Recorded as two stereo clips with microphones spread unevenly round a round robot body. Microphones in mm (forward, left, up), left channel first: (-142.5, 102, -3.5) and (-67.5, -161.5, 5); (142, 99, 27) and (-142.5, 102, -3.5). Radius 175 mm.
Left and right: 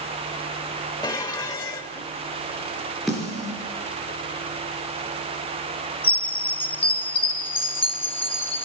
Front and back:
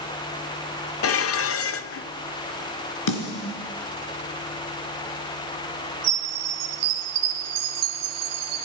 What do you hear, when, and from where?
1.0 s dishes clattering: 35° left, 0.7 m
3.1 s a snare drum: 15° left, 3.5 m
6.0 s a chime: 175° left, 1.9 m